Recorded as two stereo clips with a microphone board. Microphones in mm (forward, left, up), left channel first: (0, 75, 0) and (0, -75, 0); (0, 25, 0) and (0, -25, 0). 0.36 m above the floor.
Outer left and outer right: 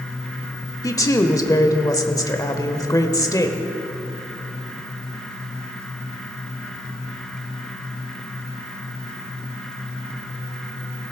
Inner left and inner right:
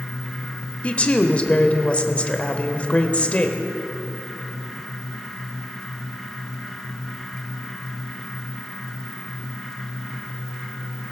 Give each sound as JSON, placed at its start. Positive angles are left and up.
{"t": 0.8, "sound": "a woman speaking", "side_deg": 25, "distance_m": 1.0}